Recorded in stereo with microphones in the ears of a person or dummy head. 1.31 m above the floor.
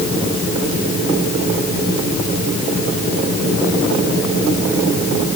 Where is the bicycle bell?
No bicycle bell in this recording.